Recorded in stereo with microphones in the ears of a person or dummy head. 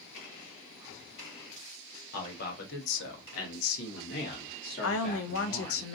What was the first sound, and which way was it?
A man speaking, 50° left (ahead or behind).